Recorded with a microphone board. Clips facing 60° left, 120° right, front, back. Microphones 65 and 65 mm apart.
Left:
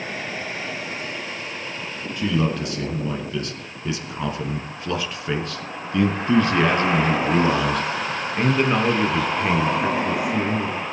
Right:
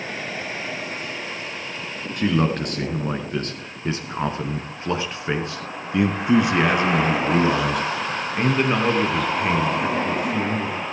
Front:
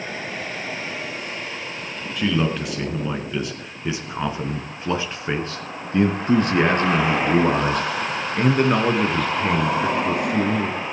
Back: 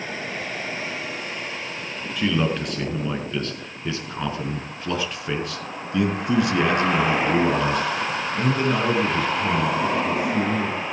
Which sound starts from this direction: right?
A man speaking, at 2.2 s.